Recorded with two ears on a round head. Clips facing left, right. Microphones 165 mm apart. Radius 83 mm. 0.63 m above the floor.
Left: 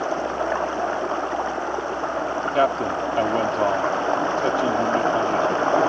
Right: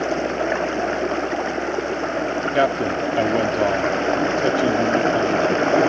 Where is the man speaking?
20° right (ahead or behind).